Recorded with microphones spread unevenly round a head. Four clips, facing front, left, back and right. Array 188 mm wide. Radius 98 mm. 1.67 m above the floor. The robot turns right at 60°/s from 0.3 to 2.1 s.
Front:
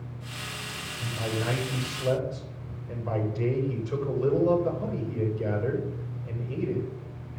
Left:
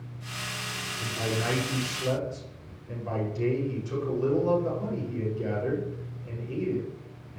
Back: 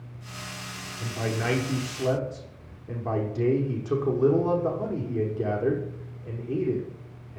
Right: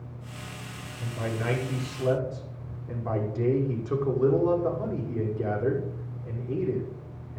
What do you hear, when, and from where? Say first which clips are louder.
1.0 s a man speaking: even, back 2 dB; 140° left, 6.5 m; by 7.4 s 155° right, 6.5 m